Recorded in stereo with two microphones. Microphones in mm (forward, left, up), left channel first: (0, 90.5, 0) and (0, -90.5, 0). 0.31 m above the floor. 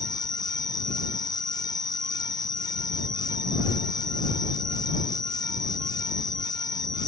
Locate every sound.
0.0 s an insect: 5° left (ahead or behind)